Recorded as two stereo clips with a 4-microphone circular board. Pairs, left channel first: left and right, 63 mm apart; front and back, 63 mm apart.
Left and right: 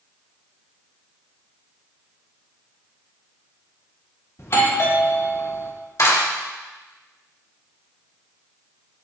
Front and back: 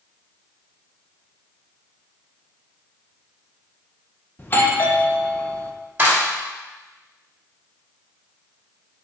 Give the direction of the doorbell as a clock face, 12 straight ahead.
10 o'clock.